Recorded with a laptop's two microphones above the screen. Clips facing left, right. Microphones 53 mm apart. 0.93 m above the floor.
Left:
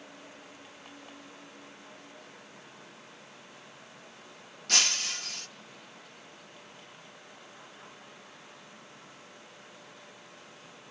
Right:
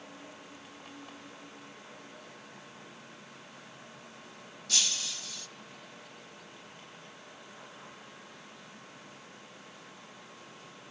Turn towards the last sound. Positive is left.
turn(degrees=55)  # may be behind; listen again after turning